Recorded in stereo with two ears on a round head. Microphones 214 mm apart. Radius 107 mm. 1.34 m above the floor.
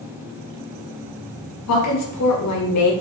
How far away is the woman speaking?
About 0.9 m.